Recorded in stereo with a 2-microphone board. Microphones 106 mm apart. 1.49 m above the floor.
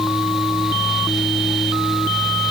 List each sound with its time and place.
Only background noise.